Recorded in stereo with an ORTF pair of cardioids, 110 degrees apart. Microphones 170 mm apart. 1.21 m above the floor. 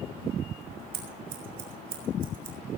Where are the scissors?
60° right, 7.5 m.